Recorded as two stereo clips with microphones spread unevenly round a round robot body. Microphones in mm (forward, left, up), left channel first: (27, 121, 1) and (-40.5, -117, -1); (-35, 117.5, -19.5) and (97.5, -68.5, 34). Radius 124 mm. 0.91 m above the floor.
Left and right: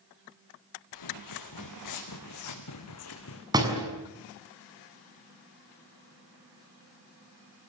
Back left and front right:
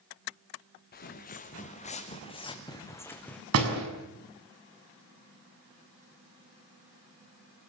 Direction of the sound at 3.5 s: 30° right.